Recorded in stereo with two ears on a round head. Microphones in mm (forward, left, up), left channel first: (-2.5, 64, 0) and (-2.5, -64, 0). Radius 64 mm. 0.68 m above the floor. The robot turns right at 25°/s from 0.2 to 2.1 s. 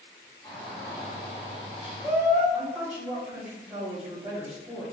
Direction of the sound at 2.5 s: 10° right (ahead or behind).